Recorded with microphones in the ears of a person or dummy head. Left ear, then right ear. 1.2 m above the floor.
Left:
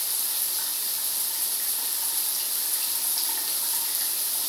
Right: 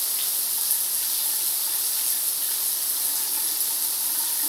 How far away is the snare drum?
No snare drum in this recording.